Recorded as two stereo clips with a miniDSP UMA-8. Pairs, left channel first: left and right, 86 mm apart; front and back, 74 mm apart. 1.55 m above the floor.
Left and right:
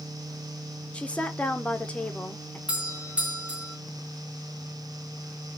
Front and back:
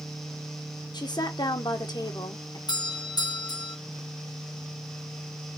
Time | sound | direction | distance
0.9 | a woman speaking | 15° left | 0.9 m
2.7 | a doorbell | 15° right | 1.1 m